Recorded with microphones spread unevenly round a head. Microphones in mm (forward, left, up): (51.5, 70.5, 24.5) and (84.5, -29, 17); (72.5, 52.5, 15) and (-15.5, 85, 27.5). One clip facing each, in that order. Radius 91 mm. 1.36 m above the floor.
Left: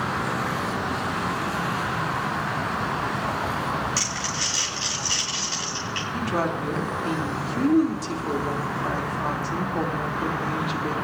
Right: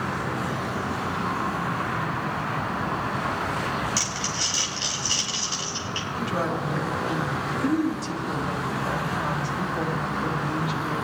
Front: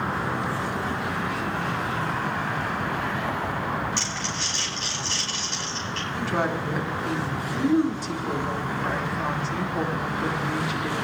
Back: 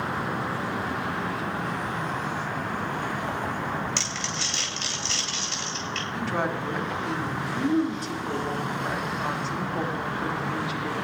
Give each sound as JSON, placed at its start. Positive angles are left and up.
{"t": 4.0, "sound": "crumpling", "azimuth_deg": -150, "distance_m": 2.5}
{"t": 6.1, "sound": "a woman speaking", "azimuth_deg": 65, "distance_m": 3.0}